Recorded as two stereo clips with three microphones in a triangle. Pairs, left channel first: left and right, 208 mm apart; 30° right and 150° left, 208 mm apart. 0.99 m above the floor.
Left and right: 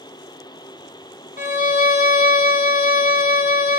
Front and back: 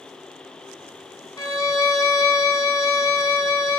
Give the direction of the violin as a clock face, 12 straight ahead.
11 o'clock.